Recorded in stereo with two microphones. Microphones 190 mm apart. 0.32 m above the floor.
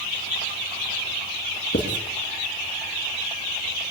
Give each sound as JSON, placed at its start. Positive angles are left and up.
{"t": 1.7, "sound": "writing", "side_deg": 70, "distance_m": 1.9}